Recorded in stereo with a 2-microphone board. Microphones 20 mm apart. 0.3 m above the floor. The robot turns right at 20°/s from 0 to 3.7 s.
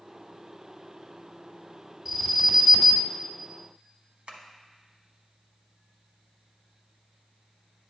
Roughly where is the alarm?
Centre.